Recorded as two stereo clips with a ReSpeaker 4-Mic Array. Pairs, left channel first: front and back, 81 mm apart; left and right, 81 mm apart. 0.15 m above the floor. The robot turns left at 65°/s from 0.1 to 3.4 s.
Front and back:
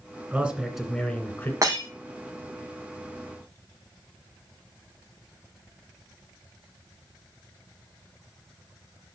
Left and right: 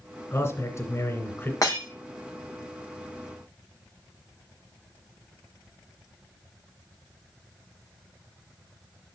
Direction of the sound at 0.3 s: 125° left.